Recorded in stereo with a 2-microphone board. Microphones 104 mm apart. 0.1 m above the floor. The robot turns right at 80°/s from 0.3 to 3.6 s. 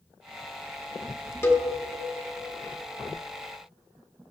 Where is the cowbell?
25° left (ahead or behind), 0.7 m.